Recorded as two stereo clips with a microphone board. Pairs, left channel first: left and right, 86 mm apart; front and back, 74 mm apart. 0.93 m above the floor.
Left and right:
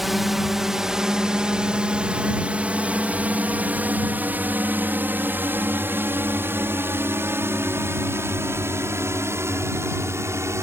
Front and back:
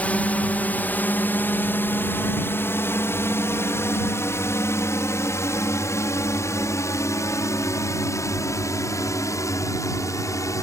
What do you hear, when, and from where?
0.0 s a drone: 5° right; by 10.6 s 35° right